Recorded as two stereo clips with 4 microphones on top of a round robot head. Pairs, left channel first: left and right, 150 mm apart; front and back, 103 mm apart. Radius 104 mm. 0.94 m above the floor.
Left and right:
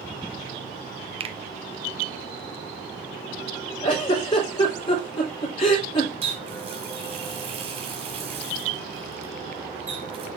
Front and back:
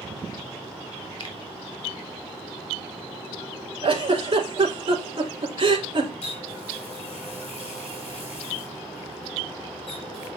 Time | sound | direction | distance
1.2 | a finger snap | 40° right | 1.1 m
3.8 | a giggle | 150° left | 3 m
6.2 | a running tap | 40° right | 4.5 m